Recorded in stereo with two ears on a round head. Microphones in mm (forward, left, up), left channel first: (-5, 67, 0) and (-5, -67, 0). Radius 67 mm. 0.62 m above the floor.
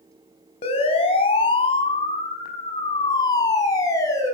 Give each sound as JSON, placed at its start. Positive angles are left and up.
{"t": 0.6, "sound": "a siren", "side_deg": 40, "distance_m": 5.0}